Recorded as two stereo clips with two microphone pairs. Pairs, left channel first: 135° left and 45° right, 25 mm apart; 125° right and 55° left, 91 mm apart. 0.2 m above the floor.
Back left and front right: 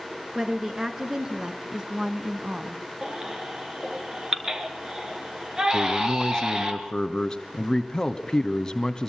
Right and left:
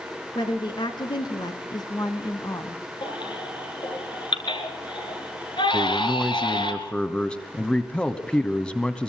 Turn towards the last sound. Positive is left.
turn(degrees=170)